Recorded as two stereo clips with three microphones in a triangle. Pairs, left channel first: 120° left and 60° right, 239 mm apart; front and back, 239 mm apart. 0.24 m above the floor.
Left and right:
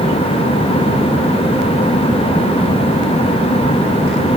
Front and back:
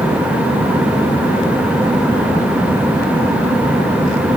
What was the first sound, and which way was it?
Only background noise.